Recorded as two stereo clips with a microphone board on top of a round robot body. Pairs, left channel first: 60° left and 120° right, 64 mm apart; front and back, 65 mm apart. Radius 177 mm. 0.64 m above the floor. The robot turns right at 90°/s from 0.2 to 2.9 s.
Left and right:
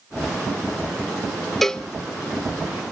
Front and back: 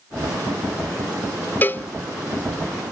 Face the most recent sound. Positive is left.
turn(degrees=95)